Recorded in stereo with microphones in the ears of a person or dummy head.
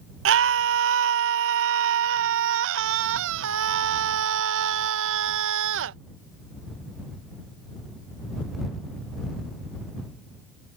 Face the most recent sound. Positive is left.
turn(degrees=-70)  # may be behind; listen again after turning